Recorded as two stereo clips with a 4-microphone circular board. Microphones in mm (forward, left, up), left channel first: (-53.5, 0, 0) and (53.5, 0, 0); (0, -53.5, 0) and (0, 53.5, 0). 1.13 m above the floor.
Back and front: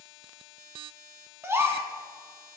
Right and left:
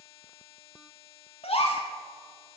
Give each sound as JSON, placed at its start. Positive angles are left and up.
{"t": 1.4, "sound": "a gasp", "azimuth_deg": -65, "distance_m": 1.5}